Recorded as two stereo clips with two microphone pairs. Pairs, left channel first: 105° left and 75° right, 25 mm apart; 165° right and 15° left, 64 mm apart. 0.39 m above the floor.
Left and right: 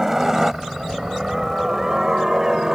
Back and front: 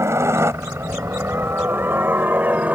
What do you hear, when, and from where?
0.0 s a helicopter: 5° right; by 2.8 s 30° right